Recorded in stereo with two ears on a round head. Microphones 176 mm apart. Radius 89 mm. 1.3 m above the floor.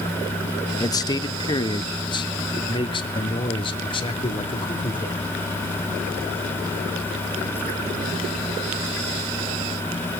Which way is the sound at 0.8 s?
20° left (ahead or behind).